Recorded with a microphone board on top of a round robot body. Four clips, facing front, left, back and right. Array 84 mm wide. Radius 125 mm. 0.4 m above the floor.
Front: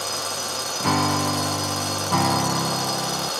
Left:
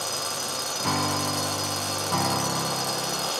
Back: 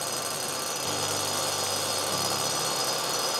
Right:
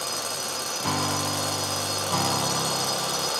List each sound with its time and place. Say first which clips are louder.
0.8 s a piano: left 1 dB, front 13 dB; 5° left